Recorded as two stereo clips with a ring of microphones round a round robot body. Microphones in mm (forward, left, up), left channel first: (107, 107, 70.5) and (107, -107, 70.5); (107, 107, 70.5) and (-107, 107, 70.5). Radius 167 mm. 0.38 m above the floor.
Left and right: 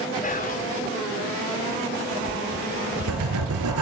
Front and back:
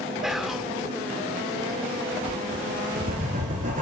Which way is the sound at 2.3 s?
115° right.